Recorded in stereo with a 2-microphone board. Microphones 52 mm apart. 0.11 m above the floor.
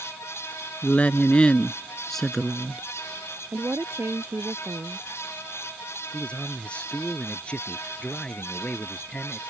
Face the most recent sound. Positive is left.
turn(degrees=20)  # may be behind; listen again after turning